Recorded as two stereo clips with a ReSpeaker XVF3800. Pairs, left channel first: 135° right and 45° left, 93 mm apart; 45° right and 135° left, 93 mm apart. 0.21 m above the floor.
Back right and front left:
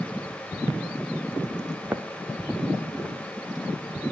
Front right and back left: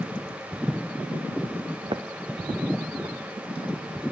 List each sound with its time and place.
1.8 s footsteps: 115° left, 1.2 m; by 3.7 s 130° left, 3.5 m